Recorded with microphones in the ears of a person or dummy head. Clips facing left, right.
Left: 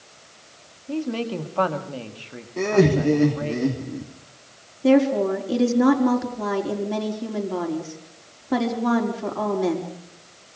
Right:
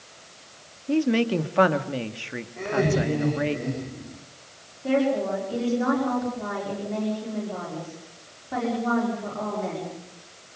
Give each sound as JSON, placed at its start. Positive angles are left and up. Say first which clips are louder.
{"t": 0.9, "sound": "a woman speaking", "louder": "right 5 dB", "side_deg": -25, "distance_m": 2.0}
{"t": 2.6, "sound": "laughter", "louder": "left 6 dB", "side_deg": 85, "distance_m": 3.5}
{"t": 4.8, "sound": "a woman speaking", "louder": "left 6 dB", "side_deg": 75, "distance_m": 4.5}